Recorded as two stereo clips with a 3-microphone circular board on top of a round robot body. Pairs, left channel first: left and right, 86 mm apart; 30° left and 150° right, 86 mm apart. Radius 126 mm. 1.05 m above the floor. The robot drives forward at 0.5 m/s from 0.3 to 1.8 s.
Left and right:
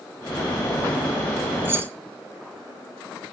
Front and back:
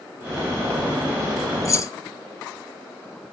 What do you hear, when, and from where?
1.6 s keys jangling: 20° right, 0.9 m; by 1.9 s 25° right, 0.8 m